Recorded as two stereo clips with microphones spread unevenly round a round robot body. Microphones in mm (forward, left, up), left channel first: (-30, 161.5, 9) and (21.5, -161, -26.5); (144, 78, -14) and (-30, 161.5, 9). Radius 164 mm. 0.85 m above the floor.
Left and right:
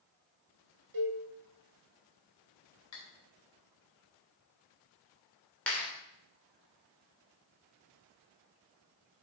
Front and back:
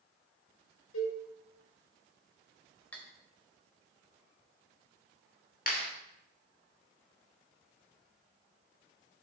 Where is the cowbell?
55° right, 3.5 m.